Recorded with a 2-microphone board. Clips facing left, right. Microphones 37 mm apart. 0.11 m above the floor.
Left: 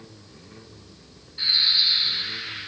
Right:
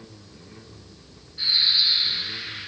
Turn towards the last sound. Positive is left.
turn(degrees=30)  # may be behind; listen again after turning